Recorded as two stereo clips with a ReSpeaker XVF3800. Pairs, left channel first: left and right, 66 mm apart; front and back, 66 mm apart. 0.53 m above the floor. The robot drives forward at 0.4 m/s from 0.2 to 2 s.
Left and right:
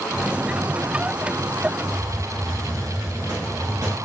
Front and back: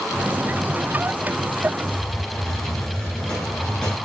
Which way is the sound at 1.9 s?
75° right.